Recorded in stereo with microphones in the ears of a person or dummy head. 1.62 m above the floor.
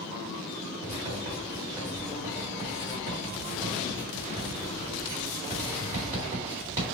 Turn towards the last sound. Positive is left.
turn(degrees=-20)  # may be behind; listen again after turning